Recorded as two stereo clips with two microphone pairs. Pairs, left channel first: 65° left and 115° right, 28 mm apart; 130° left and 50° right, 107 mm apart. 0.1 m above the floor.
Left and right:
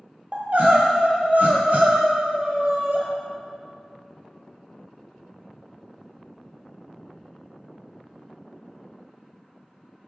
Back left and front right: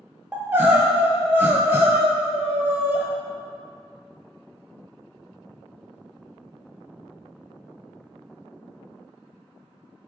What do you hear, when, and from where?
0.3 s crying: 120° right, 0.5 m